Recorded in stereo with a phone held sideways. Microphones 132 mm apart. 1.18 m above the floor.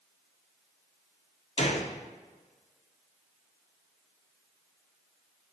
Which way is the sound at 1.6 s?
50° left (ahead or behind).